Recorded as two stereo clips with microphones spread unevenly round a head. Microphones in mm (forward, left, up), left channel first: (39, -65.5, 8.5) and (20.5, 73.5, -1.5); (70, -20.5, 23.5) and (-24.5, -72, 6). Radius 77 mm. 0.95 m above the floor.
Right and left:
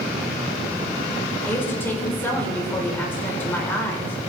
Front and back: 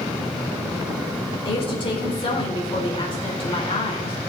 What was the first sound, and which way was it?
A woman speaking, 10° right.